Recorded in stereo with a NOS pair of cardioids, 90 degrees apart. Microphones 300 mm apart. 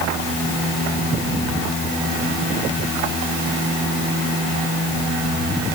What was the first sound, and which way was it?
Only background noise.